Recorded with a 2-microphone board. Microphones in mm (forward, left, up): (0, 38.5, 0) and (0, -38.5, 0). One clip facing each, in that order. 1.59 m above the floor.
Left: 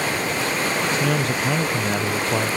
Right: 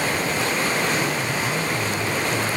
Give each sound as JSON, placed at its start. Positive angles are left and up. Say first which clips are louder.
{"t": 0.9, "sound": "a man speaking", "louder": "left 2 dB", "side_deg": 80, "distance_m": 0.9}